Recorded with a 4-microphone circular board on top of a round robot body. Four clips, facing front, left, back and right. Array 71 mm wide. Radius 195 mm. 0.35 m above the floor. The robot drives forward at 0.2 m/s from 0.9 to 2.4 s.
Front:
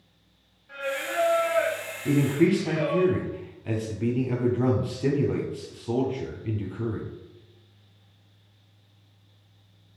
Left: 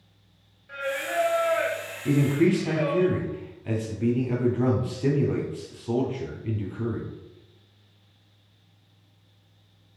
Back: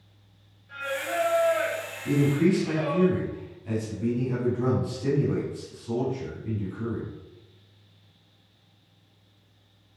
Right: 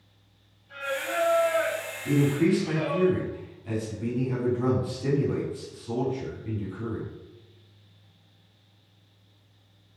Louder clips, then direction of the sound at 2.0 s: Left 1 dB, front 1 dB; 45° left.